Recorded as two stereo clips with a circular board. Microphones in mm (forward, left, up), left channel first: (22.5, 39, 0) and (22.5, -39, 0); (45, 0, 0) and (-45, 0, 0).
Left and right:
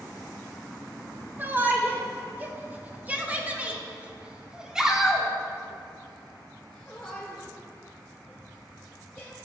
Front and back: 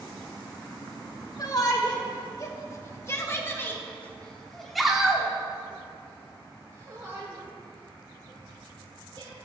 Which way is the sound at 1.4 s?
30° right.